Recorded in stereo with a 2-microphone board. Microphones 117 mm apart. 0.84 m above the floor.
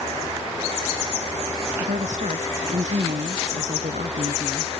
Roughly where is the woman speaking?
Right.